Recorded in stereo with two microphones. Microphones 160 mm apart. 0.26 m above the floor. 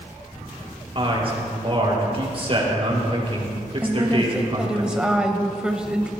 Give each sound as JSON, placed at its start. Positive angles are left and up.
{"t": 0.9, "sound": "a man speaking", "side_deg": -40, "distance_m": 5.0}
{"t": 3.8, "sound": "a woman speaking", "side_deg": -5, "distance_m": 1.1}